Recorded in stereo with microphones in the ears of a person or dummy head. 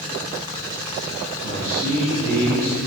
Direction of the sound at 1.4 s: 45° right (ahead or behind).